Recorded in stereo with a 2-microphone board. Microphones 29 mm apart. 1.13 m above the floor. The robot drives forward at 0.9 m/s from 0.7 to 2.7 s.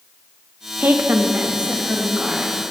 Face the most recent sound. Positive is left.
turn(degrees=-20)  # may be behind; listen again after turning